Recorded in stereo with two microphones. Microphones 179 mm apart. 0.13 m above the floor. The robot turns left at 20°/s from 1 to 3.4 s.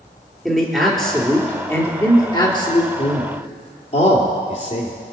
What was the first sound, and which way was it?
A man speaking, straight behind.